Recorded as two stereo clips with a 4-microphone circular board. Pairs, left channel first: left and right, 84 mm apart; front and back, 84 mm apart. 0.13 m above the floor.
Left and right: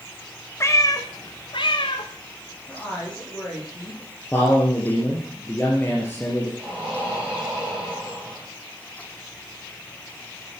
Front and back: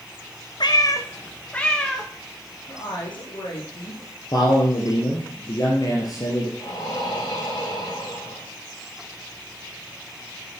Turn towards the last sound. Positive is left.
turn(degrees=-10)